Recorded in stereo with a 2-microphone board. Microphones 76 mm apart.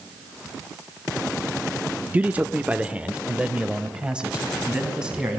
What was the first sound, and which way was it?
A man speaking, 20° right (ahead or behind).